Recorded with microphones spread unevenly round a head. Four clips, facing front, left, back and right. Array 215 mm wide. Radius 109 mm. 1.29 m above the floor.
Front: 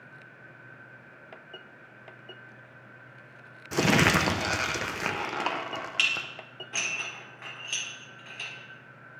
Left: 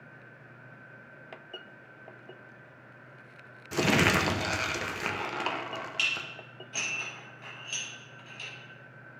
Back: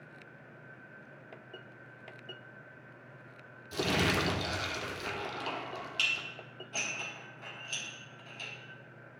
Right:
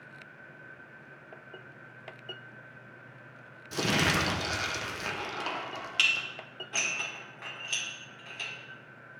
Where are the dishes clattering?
45° right, 3 m.